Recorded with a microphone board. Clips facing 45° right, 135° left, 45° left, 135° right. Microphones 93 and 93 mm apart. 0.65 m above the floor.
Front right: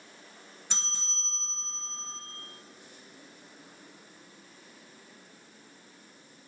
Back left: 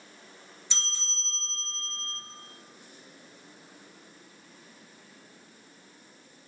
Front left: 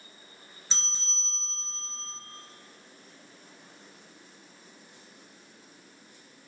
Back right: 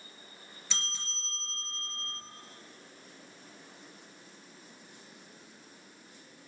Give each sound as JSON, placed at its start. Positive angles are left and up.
{"t": 0.7, "sound": "a bell", "azimuth_deg": -10, "distance_m": 2.0}